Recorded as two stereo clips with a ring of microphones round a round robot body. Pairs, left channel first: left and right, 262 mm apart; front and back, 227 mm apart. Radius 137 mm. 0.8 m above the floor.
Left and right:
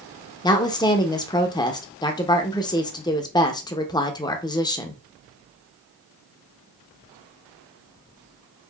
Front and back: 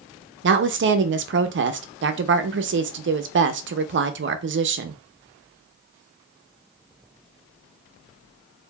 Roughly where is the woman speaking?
Behind.